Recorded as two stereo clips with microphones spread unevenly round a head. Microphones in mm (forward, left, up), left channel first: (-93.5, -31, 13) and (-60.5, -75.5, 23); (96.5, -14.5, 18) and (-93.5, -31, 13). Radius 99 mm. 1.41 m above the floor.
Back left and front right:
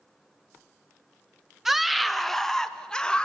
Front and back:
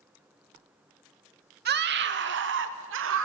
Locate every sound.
1.6 s a scream: 140° right, 1.9 m; by 3.2 s 160° right, 3 m